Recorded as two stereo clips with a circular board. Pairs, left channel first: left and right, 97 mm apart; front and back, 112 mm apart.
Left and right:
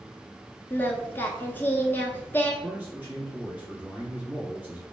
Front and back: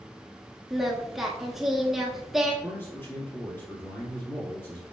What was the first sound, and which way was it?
Singing, 100° left.